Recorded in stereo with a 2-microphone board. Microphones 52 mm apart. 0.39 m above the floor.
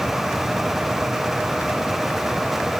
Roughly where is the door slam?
I don't hear a door slam.